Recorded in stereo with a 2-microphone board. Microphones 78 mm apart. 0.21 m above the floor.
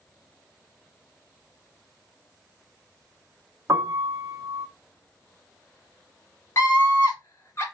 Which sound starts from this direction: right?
A piano, at 3.7 s.